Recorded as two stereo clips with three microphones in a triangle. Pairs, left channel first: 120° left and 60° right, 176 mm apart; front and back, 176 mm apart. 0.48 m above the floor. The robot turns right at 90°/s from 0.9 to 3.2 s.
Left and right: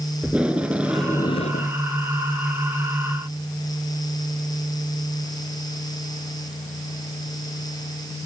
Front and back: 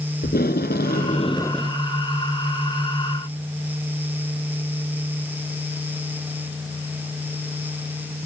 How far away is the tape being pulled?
About 1.2 m.